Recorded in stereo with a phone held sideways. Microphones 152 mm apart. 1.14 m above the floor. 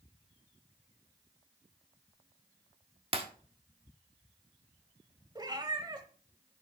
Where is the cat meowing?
30° right (ahead or behind), 1.3 m.